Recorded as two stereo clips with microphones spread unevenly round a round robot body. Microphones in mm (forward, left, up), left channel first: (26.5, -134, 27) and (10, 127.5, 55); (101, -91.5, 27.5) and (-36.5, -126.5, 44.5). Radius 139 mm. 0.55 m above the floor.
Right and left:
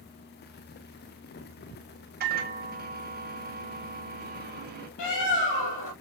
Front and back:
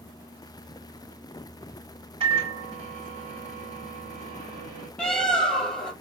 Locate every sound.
2.2 s a microwave: 145° left, 1.4 m
5.0 s a bird: 70° right, 2.5 m